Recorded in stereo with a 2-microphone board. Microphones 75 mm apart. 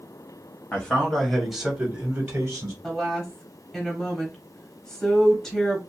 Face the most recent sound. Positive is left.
turn(degrees=10)  # may be behind; listen again after turning